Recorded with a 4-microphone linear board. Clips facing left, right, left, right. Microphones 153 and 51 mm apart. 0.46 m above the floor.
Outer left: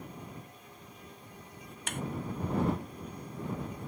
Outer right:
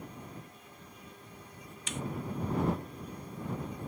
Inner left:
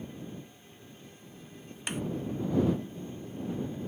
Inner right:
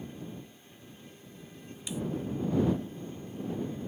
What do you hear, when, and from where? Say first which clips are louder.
1.9 s a snare drum: even, inner left 2 dB; 55° left (ahead or behind)